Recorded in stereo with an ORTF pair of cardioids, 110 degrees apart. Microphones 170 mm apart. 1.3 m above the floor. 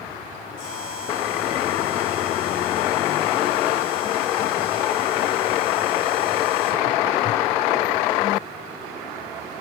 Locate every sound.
0.6 s a buzzer: 65° left, 8 m